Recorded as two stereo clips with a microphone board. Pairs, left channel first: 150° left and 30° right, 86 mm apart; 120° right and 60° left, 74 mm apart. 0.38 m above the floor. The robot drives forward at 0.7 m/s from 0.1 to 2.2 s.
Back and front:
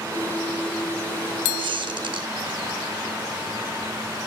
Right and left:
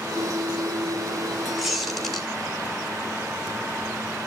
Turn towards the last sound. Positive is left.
turn(degrees=-30)